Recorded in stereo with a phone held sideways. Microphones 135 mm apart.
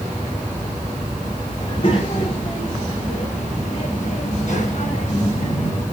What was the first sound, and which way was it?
A child speaking, 45° left (ahead or behind).